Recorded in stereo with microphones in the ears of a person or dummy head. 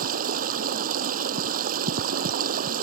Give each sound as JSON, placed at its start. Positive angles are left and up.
{"t": 0.0, "sound": "running water", "side_deg": -45}